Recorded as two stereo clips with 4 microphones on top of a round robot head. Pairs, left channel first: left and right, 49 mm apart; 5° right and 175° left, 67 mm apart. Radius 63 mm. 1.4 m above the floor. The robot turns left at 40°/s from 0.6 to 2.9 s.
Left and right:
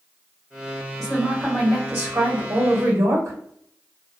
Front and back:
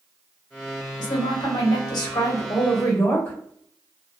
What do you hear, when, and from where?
1.0 s a woman speaking: straight ahead, 0.9 m; by 3.4 s 75° right, 0.9 m